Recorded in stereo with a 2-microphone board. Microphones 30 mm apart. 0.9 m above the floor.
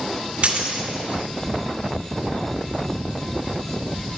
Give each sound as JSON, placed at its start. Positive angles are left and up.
{"t": 0.4, "sound": "a dropped coin", "side_deg": -45, "distance_m": 1.5}